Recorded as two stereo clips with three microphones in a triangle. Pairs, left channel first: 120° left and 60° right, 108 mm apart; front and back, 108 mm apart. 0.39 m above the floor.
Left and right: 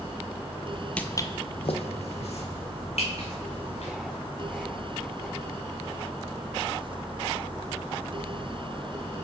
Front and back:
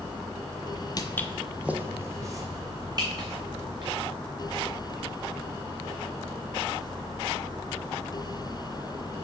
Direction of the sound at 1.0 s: 40° left.